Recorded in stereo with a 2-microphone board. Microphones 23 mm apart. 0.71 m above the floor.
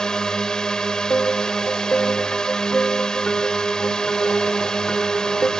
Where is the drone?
30° left (ahead or behind).